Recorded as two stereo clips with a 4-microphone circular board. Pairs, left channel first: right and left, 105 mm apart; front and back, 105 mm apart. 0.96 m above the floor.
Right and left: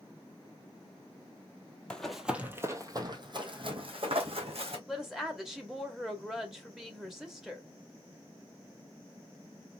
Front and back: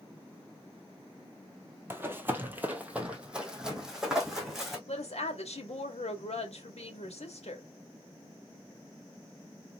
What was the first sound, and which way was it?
Running footsteps, 155° right.